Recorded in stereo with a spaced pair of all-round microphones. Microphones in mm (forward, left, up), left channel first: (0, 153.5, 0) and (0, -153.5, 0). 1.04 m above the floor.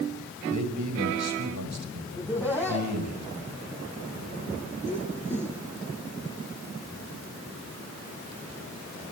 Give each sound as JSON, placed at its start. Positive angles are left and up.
{"t": 0.5, "sound": "a man speaking", "side_deg": -75, "distance_m": 5.0}
{"t": 2.1, "sound": "laughter", "side_deg": 10, "distance_m": 7.0}